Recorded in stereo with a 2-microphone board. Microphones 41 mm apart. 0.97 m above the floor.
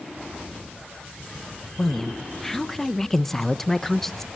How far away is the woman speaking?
About 0.9 m.